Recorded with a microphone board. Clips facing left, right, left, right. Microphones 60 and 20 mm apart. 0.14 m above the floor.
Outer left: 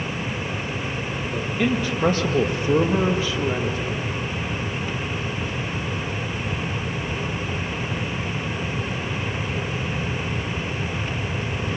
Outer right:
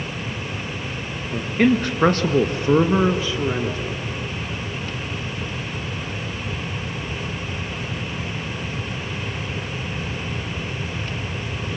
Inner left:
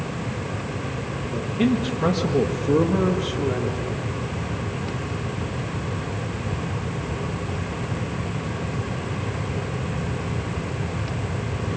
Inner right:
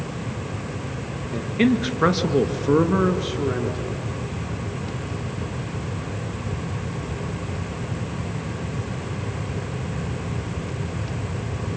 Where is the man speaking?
50° right (ahead or behind), 2.0 m; by 4.0 s 20° right (ahead or behind), 2.5 m.